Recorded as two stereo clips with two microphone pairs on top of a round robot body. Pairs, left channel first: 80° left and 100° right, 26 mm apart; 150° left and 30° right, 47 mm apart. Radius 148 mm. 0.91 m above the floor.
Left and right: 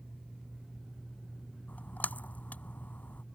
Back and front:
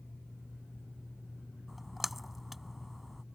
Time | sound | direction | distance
1.7 | a splash | 60° left | ?